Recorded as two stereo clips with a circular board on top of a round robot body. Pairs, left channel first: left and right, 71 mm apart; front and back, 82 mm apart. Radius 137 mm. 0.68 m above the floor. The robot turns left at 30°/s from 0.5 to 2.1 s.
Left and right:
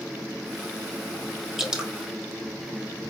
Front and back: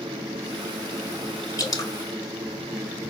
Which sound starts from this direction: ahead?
Dripping, at 1.6 s.